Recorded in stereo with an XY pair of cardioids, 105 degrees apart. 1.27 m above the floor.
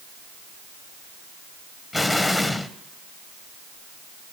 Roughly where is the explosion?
Ahead.